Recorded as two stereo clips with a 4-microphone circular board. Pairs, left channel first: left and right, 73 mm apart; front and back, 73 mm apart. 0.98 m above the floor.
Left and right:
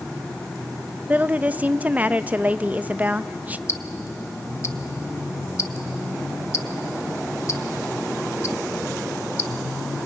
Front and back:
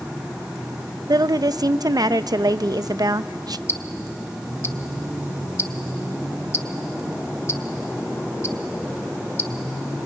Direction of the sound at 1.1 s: 160° right.